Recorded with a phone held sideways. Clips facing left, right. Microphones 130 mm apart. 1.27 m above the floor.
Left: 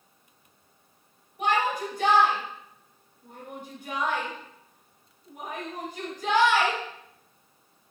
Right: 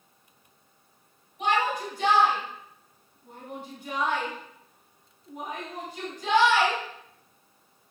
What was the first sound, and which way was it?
A shout, 55° left (ahead or behind).